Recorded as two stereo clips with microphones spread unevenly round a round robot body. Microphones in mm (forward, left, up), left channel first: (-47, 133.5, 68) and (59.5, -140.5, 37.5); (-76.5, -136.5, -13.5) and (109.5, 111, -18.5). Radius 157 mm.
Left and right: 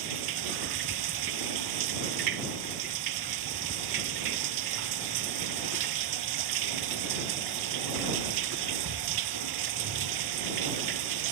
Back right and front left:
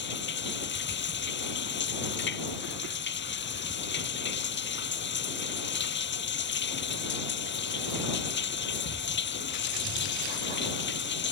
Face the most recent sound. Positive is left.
turn(degrees=-70)